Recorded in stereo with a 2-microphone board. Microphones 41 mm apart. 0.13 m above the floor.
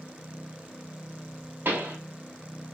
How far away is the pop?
About 1.1 m.